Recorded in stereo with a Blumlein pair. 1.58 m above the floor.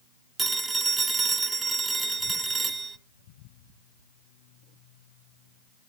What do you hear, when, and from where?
0.4 s a phone ringing: 10° right, 1.4 m